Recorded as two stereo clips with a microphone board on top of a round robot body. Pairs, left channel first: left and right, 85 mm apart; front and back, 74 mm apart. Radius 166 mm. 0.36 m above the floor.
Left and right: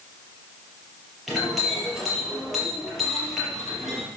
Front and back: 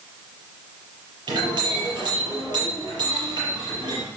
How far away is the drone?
No drone in this recording.